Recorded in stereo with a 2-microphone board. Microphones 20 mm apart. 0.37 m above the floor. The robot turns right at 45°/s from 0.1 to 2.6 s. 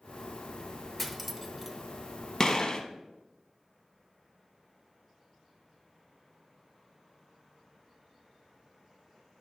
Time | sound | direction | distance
1.0 | cutlery clinking | 5° left (ahead or behind) | 0.6 m
2.4 | a gunshot | 30° left (ahead or behind) | 0.7 m